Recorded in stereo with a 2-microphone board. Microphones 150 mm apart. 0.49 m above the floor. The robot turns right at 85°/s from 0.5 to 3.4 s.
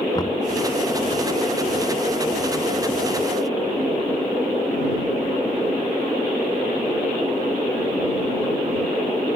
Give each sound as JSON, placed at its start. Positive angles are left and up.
{"t": 0.1, "sound": "knocking", "side_deg": 25}